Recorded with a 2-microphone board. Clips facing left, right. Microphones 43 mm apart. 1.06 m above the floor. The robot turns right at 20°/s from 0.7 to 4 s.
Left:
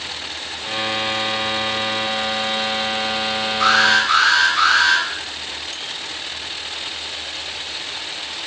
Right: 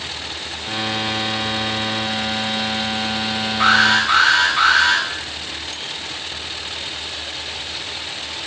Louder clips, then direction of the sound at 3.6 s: Right 1 dB; 15° right (ahead or behind).